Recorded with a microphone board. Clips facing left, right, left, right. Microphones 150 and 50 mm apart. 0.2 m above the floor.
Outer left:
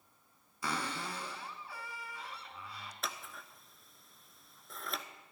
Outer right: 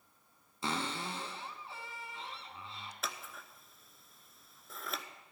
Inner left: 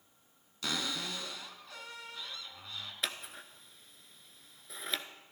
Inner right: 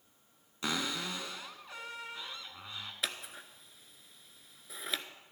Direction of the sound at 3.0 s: Centre (ahead or behind).